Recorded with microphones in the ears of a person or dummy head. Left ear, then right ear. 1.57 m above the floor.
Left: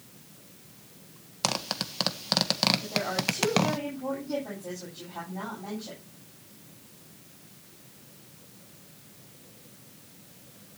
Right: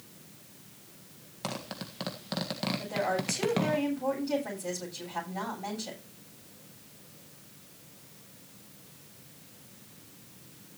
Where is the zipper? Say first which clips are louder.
Left 9 dB; 45° left (ahead or behind), 1.5 m.